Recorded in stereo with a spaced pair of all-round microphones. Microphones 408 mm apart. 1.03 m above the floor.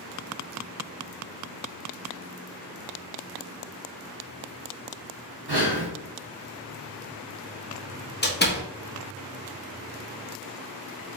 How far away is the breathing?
About 1.0 m.